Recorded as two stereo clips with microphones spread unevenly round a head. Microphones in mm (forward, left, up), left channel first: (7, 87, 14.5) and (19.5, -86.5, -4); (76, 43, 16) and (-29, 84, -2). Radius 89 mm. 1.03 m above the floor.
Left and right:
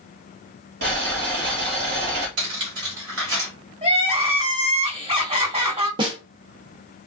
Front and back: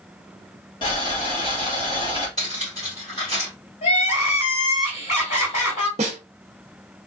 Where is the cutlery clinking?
90° right, 2.5 m.